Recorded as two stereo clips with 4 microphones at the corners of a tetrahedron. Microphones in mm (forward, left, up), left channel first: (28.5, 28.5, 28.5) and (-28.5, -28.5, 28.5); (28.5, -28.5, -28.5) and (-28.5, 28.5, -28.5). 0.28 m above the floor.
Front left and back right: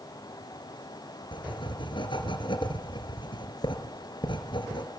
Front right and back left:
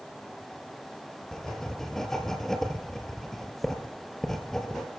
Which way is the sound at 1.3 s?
40° left.